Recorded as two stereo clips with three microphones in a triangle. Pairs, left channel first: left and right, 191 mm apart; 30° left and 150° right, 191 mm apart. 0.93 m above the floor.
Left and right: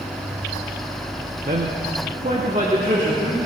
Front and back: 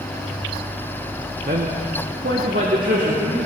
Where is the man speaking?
125° right, 1.5 m; by 3.4 s 145° right, 3 m.